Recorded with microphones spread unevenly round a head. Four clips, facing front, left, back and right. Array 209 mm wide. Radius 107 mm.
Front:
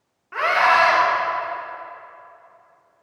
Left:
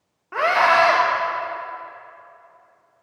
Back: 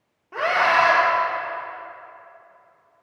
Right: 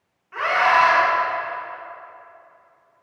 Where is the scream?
115° left, 1.6 m.